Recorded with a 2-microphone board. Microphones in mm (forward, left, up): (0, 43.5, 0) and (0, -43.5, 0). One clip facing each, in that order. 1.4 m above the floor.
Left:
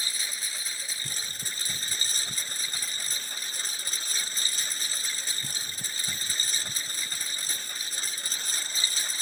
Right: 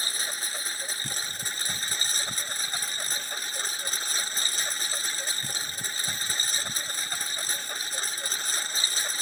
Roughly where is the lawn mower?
Right.